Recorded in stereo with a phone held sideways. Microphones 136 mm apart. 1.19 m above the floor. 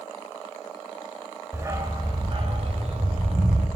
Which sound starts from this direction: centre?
A dog barking, at 1.5 s.